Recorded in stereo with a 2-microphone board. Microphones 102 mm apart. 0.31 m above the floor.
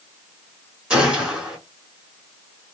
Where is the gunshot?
5° right (ahead or behind), 1.5 m.